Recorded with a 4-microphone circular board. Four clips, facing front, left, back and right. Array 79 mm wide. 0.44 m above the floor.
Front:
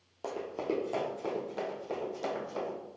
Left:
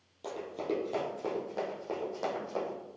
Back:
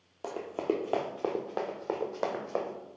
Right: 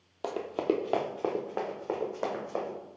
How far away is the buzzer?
I don't hear a buzzer.